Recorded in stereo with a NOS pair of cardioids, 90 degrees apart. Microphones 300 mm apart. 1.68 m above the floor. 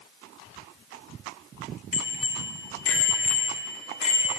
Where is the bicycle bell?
60° left, 3.5 m; by 4.3 s 80° left, 2.5 m.